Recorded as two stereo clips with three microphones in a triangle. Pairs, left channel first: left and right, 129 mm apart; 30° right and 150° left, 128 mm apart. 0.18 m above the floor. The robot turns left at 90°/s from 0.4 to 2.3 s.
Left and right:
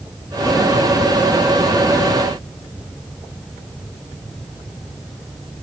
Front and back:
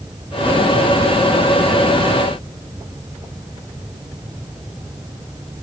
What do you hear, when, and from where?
Only background noise.